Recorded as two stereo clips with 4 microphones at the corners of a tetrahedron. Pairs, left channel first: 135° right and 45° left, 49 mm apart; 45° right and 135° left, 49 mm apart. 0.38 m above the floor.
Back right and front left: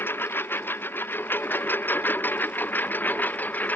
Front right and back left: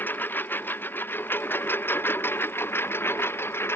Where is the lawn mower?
95° right; by 3.8 s 80° right.